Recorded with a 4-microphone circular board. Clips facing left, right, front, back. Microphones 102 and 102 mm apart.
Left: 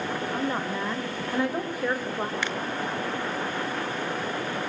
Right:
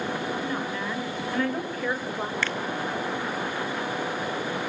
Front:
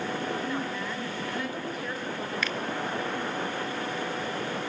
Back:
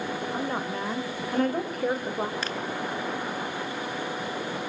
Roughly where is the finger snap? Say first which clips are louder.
Right 1 dB, even; behind left.